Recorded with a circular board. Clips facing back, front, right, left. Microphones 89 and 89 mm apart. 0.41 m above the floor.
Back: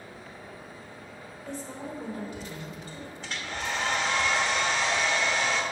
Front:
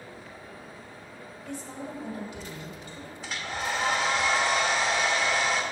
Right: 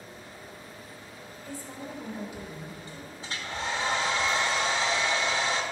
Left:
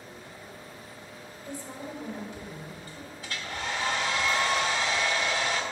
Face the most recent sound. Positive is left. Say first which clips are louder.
# front 2 dB, right 1 dB
turn(degrees=-85)